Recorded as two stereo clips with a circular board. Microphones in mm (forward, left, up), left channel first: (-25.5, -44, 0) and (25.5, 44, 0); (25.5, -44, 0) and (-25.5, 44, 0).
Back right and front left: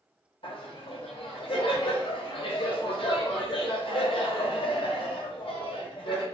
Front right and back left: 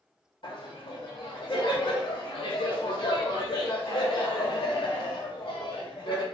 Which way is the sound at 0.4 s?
90° right.